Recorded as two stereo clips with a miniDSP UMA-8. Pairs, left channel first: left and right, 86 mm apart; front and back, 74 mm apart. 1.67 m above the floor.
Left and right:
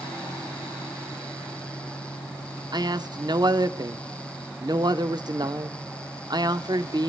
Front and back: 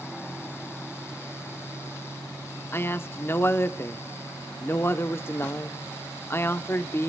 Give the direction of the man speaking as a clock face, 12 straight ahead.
2 o'clock.